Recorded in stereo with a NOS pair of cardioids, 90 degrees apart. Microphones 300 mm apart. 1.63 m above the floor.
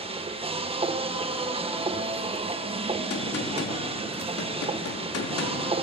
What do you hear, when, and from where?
0.0 s a machine running: 20° right, 1.6 m
3.1 s a gunshot: 50° left, 3.5 m